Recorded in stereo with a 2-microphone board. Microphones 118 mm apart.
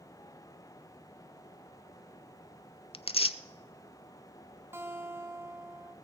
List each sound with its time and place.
2.9 s tearing paper: 50° left (ahead or behind), 0.5 m
4.7 s a guitar: 20° right (ahead or behind), 1.3 m